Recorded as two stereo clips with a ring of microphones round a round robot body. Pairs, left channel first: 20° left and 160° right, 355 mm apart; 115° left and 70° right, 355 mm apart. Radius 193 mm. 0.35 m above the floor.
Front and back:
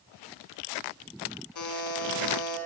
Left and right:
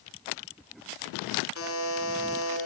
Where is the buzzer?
60° left, 5 m.